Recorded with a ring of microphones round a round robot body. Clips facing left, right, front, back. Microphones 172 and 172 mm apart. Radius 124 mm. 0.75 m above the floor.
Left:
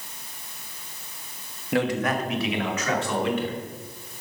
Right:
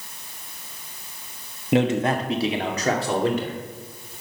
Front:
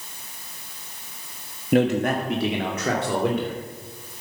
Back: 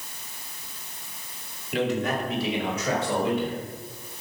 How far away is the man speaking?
About 1.3 m.